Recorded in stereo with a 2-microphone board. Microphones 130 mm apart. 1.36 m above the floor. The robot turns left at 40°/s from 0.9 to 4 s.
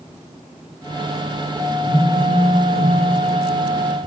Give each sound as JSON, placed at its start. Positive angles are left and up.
{"t": 1.8, "sound": "a phone buzzing", "azimuth_deg": -115, "distance_m": 2.0}